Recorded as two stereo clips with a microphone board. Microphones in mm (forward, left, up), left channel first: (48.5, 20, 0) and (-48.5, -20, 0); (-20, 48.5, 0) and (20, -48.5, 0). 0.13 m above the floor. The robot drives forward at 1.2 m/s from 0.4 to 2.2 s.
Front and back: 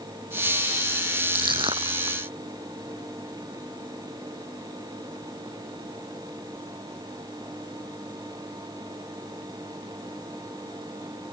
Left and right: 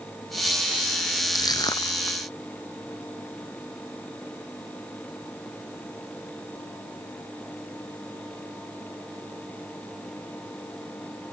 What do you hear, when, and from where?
1.4 s crushing: 160° left; by 2.2 s 165° left